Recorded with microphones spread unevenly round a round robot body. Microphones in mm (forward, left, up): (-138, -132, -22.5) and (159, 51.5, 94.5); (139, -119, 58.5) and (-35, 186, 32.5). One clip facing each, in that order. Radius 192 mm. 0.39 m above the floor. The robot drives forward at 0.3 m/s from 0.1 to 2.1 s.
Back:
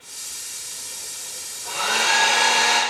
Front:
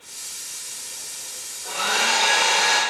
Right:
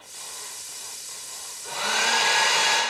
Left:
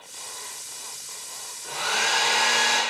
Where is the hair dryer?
80° right, 1.1 m; by 2.8 s 95° right, 1.1 m.